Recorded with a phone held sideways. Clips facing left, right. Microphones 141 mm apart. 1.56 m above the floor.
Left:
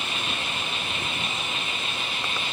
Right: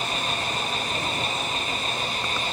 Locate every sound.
0.0 s an engine running: 40° right (ahead or behind)